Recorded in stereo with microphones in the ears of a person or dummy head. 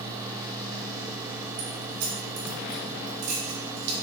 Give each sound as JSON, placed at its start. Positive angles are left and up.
{"t": 1.6, "sound": "keys jangling", "side_deg": -60, "distance_m": 4.0}